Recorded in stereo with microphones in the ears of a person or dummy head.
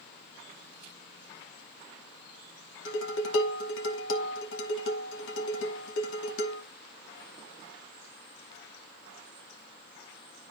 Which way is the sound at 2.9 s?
75° left (ahead or behind).